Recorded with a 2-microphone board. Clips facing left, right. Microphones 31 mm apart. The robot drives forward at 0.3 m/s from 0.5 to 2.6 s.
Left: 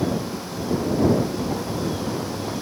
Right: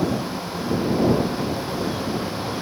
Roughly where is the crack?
No crack in this recording.